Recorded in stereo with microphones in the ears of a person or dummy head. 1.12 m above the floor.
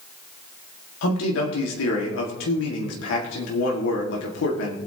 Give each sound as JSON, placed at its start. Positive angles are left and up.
{"t": 1.0, "sound": "a man speaking", "side_deg": 80, "distance_m": 2.0}